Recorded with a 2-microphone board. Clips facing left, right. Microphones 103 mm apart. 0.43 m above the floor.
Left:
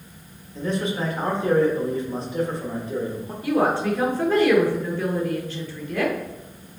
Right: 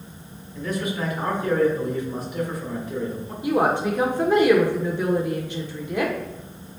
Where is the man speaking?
30° left (ahead or behind), 1.2 m.